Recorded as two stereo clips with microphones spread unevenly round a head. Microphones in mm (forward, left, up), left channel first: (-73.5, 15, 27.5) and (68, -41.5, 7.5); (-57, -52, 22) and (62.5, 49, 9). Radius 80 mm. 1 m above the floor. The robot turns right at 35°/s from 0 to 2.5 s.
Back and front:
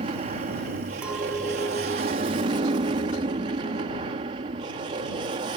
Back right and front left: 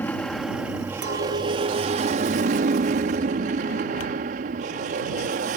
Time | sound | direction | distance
0.0 | an aircraft | 65° right | ?
1.0 | a clink | 60° left | ?